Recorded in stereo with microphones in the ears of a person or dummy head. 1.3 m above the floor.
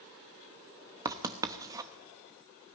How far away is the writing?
About 1.0 m.